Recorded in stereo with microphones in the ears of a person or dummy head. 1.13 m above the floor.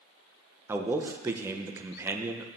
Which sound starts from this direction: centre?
A man speaking, at 0.7 s.